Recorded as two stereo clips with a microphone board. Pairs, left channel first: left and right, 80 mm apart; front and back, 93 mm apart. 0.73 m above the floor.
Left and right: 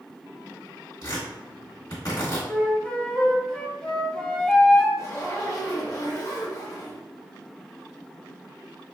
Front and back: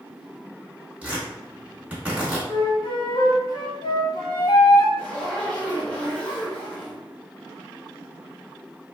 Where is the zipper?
70° left, 1.1 m.